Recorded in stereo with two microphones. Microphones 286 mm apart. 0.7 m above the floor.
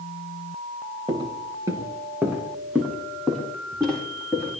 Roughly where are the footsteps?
Centre.